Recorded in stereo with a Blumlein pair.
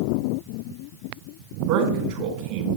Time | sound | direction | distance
1.7 | a man speaking | 45° right | 3.5 m